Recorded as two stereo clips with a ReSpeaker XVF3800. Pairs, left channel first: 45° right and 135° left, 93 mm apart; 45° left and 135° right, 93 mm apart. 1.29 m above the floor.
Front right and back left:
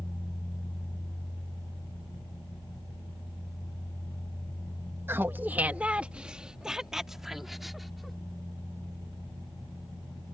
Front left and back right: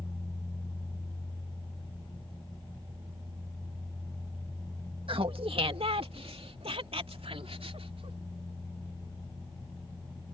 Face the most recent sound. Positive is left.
turn(degrees=-135)